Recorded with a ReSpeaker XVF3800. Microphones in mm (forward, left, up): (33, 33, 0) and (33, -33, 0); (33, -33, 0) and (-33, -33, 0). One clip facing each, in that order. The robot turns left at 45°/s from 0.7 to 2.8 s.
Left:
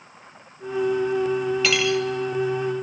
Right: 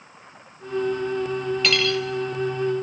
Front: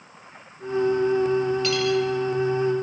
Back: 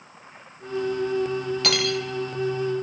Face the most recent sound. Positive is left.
turn(degrees=125)